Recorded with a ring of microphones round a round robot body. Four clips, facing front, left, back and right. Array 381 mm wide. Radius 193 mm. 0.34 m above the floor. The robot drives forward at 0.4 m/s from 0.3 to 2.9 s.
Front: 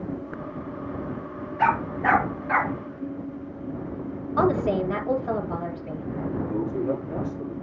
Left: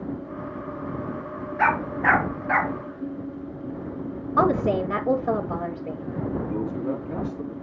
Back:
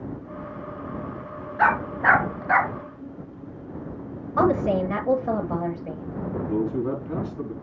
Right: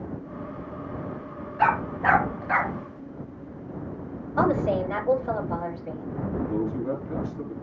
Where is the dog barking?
150° left, 1.6 m; by 2.7 s 155° left, 2.0 m.